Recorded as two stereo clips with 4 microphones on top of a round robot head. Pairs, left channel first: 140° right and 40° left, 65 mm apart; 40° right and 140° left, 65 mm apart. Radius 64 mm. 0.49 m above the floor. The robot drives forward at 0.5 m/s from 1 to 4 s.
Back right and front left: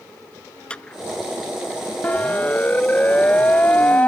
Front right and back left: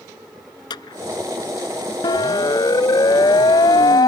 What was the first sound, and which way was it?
A clap, 60° right.